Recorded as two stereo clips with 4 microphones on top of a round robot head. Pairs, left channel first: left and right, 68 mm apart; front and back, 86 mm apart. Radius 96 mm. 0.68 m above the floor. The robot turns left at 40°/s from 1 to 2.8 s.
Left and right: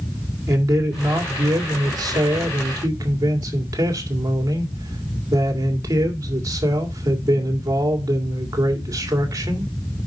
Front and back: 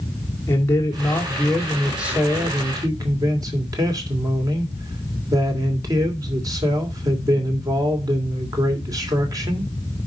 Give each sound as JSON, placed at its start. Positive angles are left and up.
{"t": 0.5, "sound": "a man speaking", "azimuth_deg": -60, "distance_m": 2.5}